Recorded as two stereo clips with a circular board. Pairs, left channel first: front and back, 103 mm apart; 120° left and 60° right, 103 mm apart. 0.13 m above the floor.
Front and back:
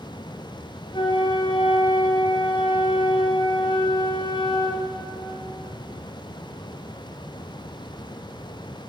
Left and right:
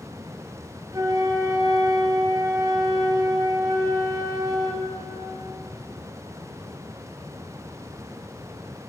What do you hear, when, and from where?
0.9 s a flute: 10° right, 1.1 m